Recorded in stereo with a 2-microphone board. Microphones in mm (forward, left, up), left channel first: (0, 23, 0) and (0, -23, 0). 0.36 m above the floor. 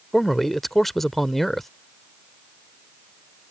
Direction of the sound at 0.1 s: 5° left (ahead or behind).